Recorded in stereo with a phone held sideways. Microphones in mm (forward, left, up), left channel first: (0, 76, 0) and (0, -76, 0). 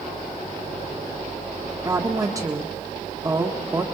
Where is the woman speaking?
20° right (ahead or behind), 1.6 m.